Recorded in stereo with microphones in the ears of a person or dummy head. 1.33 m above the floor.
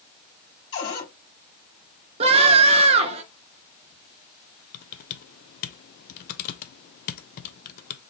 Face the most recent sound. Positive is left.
turn(degrees=50)  # may be behind; listen again after turning